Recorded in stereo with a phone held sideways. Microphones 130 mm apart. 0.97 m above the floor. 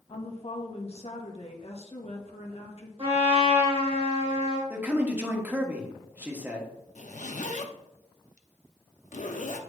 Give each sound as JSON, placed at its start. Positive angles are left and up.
{"t": 0.1, "sound": "a woman speaking", "side_deg": 55, "distance_m": 1.4}
{"t": 3.0, "sound": "a trumpet", "side_deg": -50, "distance_m": 2.5}
{"t": 4.7, "sound": "a man speaking", "side_deg": -15, "distance_m": 1.4}
{"t": 7.0, "sound": "a zipper", "side_deg": 70, "distance_m": 0.7}